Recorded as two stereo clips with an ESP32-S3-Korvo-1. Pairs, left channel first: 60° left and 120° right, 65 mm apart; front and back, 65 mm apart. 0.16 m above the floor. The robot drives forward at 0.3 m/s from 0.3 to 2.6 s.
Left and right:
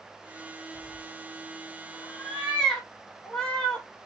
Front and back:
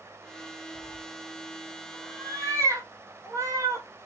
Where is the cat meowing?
130° left, 2 m; by 3.9 s 140° left, 2.5 m.